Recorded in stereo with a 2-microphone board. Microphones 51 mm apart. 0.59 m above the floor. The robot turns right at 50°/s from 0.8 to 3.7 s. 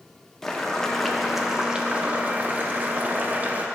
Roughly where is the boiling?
Behind.